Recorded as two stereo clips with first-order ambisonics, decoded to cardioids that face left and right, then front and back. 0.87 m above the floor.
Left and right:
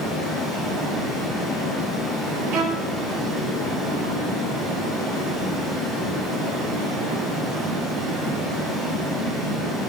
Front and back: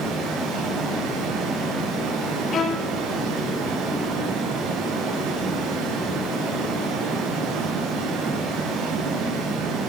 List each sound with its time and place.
0.0 s running water: 150° right, 6.5 m
2.5 s a violin: 60° right, 1.6 m